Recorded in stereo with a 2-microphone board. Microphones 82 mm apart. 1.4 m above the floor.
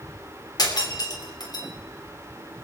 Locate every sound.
0.6 s breaking glass: 60° left (ahead or behind), 3 m